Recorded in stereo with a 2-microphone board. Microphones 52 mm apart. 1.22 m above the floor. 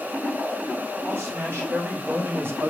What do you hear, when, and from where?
1.0 s a man speaking: 45° right (ahead or behind), 1.3 m; by 2.7 s 40° right (ahead or behind), 0.5 m